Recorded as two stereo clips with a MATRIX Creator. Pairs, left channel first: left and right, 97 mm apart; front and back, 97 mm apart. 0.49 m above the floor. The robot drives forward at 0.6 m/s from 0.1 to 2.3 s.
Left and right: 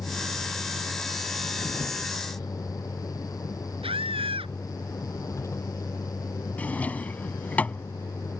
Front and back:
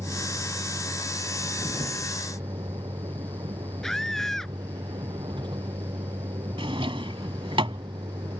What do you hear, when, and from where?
0.0 s a vehicle: 145° left; by 8.4 s 150° left
3.8 s a scream: 85° right
6.6 s a drawer: 165° left